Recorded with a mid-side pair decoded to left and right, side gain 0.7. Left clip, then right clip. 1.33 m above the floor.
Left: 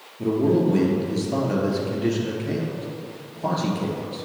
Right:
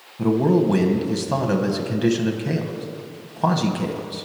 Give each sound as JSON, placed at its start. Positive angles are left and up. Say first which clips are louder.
{"t": 0.2, "sound": "a man speaking", "louder": "right 2 dB", "azimuth_deg": -60, "distance_m": 0.9}